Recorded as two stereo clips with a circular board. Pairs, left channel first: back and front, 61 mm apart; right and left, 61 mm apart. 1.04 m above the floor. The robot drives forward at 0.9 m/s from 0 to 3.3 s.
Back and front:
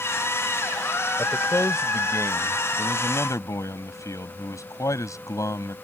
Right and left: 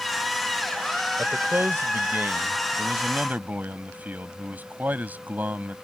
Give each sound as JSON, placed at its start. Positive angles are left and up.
{"t": 1.2, "sound": "a man speaking", "azimuth_deg": 135}